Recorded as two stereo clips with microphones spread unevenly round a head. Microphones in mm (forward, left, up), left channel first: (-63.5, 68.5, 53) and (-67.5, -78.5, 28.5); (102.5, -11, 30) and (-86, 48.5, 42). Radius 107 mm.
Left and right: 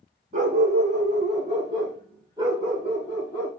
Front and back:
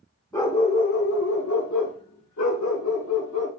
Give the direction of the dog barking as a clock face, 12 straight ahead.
3 o'clock.